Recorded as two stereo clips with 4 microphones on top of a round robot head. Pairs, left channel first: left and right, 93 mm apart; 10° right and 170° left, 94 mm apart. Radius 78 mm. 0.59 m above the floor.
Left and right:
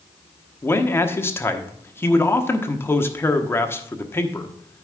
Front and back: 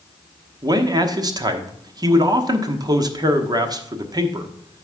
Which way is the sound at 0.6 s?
145° left.